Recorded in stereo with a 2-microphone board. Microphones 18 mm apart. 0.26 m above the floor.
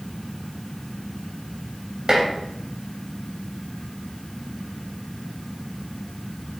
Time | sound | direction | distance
2.1 | dishes clattering | 35° right (ahead or behind) | 0.7 m